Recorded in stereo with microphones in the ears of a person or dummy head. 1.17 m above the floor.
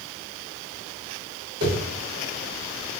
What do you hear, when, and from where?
1.6 s a whoosh: 50° right (ahead or behind), 1.7 m